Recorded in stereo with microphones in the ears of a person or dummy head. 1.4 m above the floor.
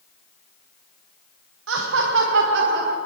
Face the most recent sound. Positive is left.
turn(degrees=-60)  # may be behind; listen again after turning